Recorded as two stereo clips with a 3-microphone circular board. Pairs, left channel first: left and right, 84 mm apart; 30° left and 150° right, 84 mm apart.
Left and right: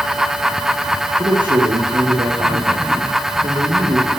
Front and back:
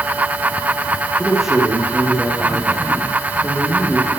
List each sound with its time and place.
1.2 s a man speaking: 65° right, 9.5 m